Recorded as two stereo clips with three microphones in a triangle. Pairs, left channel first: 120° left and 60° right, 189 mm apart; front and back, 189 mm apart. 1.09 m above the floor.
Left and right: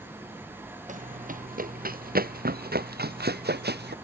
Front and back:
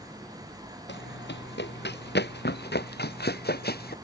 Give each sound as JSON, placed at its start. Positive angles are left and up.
{"t": 0.9, "sound": "running footsteps", "azimuth_deg": -15}